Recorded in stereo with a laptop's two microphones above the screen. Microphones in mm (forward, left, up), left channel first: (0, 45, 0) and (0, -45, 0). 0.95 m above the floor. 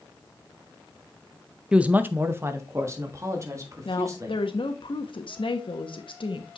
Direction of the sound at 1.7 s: 10° right (ahead or behind).